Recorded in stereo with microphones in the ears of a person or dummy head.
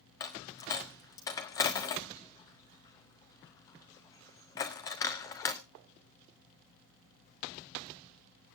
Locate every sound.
0.2 s a dropped coin: 15° left (ahead or behind), 0.5 m